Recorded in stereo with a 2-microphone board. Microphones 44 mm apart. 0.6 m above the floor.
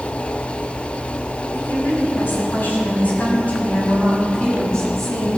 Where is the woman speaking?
65° left (ahead or behind), 6 m; by 5.4 s 10° left (ahead or behind), 6.5 m.